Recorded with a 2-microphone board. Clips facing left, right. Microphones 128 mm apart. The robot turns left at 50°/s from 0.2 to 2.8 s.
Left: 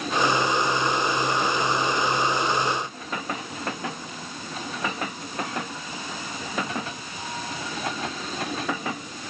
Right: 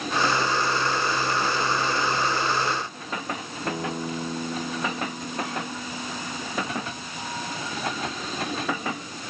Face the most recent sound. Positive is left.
turn(degrees=-50)  # may be behind; listen again after turning